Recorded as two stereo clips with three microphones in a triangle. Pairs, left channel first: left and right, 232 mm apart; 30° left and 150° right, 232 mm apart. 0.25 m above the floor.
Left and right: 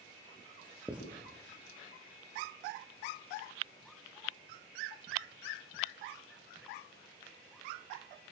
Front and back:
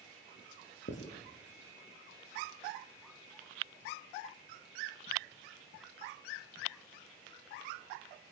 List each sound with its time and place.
0.9 s writing: 5° right, 5.5 m